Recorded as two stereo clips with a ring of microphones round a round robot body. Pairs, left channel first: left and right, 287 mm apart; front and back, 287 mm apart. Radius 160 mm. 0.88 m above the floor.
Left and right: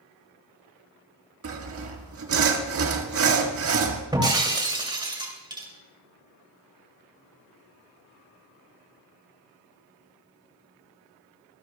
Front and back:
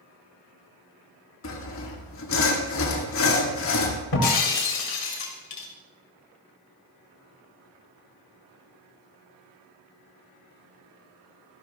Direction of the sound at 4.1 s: 15° right.